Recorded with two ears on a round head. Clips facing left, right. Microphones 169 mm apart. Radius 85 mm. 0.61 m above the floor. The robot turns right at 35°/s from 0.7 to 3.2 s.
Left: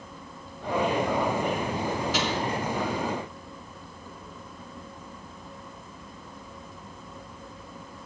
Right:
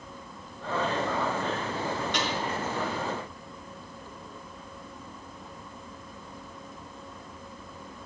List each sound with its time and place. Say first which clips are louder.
2.1 s a snare drum: left 3 dB; centre (ahead or behind), 6 m; by 2.3 s 10° left (ahead or behind), 6 m